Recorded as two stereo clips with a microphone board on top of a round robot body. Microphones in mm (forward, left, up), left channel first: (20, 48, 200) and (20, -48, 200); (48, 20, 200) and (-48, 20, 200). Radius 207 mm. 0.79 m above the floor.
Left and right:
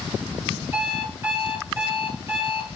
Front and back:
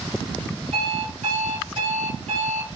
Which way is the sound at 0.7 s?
165° right.